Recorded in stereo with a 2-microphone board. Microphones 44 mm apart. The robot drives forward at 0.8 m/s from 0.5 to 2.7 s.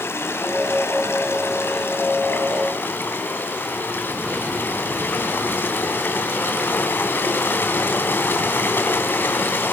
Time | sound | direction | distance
0.0 | running water | 70° left (ahead or behind) | 2 m